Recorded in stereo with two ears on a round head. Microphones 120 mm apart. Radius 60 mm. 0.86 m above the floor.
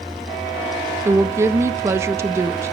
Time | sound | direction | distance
1.1 | a woman speaking | 20° right (ahead or behind) | 0.7 m